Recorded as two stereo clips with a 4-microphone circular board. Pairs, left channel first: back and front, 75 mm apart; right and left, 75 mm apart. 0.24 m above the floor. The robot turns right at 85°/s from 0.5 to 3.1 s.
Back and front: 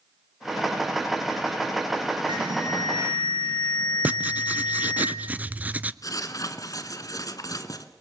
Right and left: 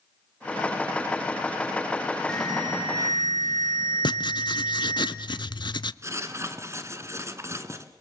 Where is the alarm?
15° right, 7 m; by 5.0 s 55° left, 7 m.